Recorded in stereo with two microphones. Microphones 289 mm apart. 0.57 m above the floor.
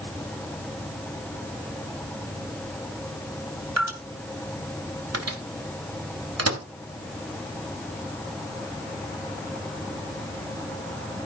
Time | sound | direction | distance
3.8 | dripping | 80° right | 2 m
5.1 | a microwave | 65° right (ahead or behind) | 1.6 m